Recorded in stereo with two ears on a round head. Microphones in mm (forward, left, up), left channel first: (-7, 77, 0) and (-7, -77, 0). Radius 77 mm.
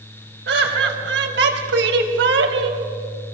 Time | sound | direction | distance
0.5 | laughter | 70° right (ahead or behind) | 4 m